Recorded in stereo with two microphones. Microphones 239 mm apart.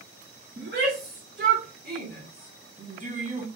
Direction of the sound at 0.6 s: 50° right (ahead or behind).